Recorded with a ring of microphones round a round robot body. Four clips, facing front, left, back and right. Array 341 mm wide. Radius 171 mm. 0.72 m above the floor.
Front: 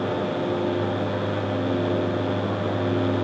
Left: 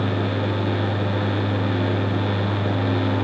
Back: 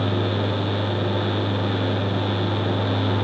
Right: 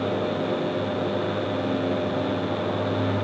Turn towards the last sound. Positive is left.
No sound to turn to.